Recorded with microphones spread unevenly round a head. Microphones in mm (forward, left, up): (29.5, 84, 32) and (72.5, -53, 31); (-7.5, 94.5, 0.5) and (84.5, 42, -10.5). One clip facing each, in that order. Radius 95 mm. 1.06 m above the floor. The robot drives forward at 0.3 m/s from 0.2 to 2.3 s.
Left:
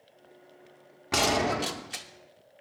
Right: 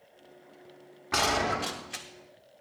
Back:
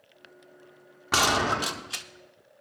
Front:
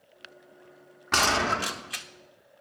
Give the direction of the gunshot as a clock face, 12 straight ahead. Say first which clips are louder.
Left 2 dB, back 1 dB; 9 o'clock.